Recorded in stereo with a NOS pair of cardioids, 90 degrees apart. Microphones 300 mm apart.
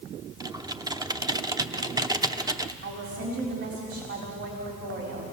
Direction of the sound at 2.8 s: 50° right.